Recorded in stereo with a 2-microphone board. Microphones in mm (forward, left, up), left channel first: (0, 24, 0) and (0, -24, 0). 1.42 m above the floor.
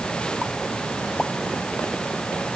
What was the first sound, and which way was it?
Only background noise.